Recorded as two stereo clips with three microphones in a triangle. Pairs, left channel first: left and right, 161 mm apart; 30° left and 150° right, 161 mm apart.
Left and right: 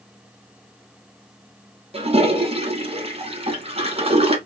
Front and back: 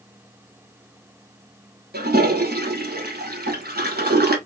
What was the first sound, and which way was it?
A toilet flushing, 140° right.